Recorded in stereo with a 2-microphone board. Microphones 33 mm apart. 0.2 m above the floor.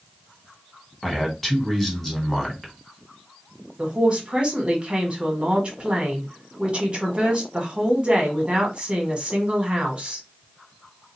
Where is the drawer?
No drawer in this recording.